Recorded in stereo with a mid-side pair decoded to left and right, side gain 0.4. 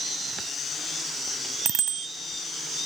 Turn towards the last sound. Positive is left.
turn(degrees=-70)